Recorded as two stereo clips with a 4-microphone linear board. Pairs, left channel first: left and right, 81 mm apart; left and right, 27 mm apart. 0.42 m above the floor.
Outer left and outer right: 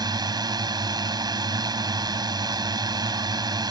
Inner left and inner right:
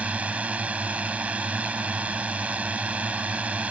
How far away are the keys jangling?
I don't hear keys jangling.